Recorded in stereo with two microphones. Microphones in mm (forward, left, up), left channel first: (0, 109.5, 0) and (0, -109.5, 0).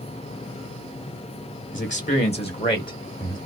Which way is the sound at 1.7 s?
40° left (ahead or behind).